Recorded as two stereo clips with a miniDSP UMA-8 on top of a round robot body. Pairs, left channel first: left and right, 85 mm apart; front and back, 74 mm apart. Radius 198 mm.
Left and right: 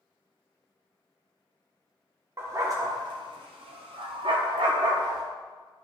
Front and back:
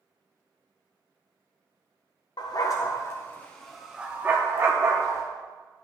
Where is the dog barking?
30° right, 0.9 m; by 5.2 s 135° right, 1.1 m.